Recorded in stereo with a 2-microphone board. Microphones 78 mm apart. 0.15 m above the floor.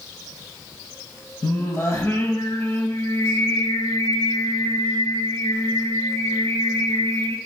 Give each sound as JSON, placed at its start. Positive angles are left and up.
{"t": 1.4, "sound": "singing", "side_deg": 45, "distance_m": 1.0}